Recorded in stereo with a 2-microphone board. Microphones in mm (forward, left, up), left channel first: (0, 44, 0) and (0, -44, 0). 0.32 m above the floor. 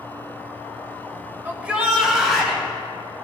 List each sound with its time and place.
1.4 s a shout: 15° right (ahead or behind), 0.9 m; by 2.6 s 5° left (ahead or behind), 1.9 m